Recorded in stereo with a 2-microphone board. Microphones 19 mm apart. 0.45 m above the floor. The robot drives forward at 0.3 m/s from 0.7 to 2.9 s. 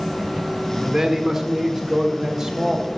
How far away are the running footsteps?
No running footsteps in this recording.